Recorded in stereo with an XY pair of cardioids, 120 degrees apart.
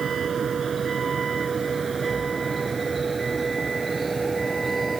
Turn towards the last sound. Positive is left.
turn(degrees=-20)